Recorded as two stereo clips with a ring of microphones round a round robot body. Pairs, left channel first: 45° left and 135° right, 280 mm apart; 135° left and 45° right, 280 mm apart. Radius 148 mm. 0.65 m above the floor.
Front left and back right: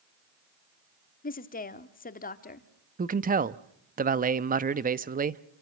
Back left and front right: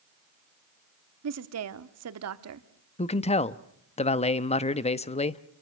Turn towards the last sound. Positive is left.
turn(degrees=-170)